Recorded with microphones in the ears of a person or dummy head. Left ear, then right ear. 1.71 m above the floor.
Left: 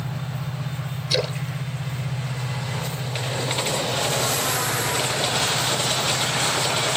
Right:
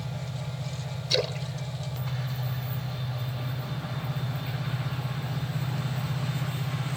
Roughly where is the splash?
Centre.